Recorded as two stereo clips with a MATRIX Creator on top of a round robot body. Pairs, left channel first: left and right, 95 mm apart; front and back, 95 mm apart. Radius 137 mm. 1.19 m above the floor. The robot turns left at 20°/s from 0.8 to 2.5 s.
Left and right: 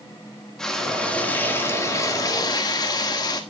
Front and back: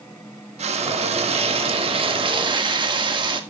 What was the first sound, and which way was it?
Frying, 175° left.